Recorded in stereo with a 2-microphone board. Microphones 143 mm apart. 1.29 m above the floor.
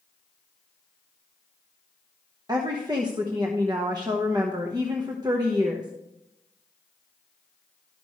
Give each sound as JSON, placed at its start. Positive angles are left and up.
{"t": 2.5, "sound": "a woman speaking", "side_deg": -30, "distance_m": 0.9}